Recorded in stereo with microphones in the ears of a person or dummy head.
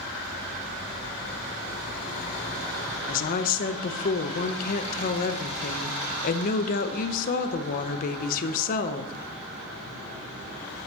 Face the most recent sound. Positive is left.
turn(degrees=45)  # may be behind; listen again after turning